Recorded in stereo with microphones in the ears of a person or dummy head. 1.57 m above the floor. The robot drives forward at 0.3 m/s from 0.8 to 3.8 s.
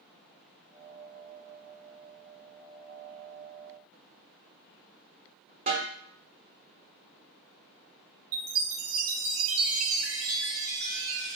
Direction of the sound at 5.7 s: 40° right (ahead or behind).